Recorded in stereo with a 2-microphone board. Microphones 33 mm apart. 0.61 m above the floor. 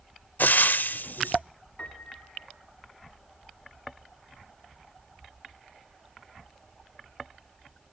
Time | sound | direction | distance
0.4 | frying | 75° left (ahead or behind) | 0.7 m
1.8 | a piano | 40° left (ahead or behind) | 2 m